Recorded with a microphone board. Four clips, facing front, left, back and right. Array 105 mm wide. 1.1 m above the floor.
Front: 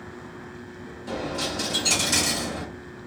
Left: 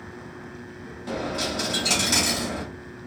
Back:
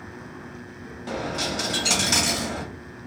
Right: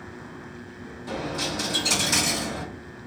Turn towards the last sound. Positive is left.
turn(degrees=165)